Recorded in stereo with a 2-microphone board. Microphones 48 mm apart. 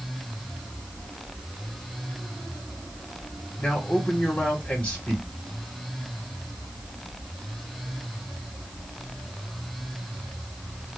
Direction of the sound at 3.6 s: 25° left (ahead or behind).